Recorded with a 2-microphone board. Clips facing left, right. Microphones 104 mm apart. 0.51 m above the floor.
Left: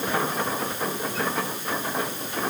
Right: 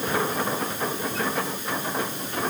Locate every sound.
Only background noise.